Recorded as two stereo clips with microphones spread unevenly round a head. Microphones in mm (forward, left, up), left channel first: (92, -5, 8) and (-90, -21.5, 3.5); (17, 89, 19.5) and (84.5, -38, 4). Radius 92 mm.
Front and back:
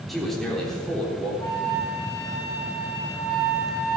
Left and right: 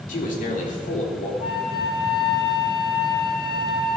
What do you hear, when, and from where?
0.1 s a man speaking: 95° left, 3.5 m; by 1.3 s 90° left, 4 m
1.4 s a flute: 75° left, 7 m